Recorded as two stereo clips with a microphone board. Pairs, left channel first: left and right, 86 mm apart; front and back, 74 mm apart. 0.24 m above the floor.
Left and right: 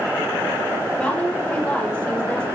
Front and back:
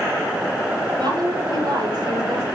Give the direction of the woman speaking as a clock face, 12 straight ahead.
6 o'clock.